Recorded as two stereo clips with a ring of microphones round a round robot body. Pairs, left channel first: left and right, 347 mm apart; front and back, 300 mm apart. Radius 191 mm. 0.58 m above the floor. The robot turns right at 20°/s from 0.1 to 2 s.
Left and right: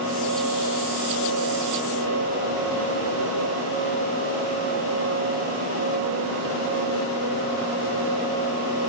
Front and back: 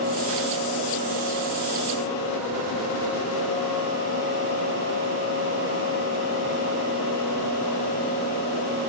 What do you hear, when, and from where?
Only background noise.